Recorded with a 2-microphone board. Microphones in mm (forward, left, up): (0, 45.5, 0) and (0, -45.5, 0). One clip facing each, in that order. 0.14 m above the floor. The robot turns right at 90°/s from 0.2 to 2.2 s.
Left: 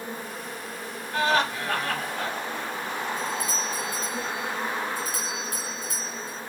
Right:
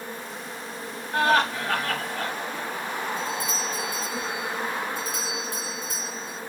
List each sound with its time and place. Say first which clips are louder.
0.0 s an insect: left 1 dB; 165° left, 1.7 m; by 6.5 s 15° right, 1.7 m
1.1 s laughter: right 2 dB; 75° right, 2.5 m; by 2.3 s 20° left, 2.5 m
3.2 s a doorbell: even; 20° right (ahead or behind), 2.5 m